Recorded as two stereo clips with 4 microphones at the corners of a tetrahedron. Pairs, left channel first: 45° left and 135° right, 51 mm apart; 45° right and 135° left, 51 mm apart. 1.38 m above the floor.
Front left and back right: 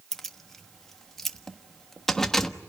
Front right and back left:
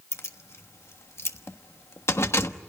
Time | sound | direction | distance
0.1 | keys jangling | 35° right | 1.2 m